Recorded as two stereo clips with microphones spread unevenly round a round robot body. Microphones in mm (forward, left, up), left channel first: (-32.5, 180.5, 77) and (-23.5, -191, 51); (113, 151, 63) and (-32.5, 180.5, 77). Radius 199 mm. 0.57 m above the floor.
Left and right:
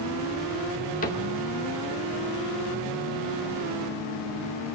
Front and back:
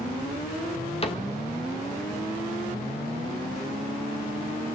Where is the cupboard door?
25° left, 1.8 m.